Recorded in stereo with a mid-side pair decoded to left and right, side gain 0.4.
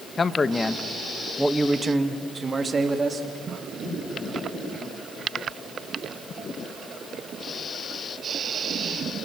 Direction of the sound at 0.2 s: 40° left.